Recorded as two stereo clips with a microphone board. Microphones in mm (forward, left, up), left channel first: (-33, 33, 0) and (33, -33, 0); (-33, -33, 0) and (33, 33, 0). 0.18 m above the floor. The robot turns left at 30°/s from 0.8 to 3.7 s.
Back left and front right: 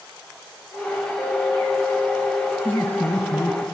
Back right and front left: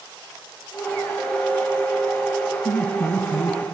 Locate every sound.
1.2 s a clink: 105° left, 6 m; by 2.5 s 65° left, 6 m
2.6 s laughter: 170° right, 1.5 m; by 3.6 s 160° left, 1.5 m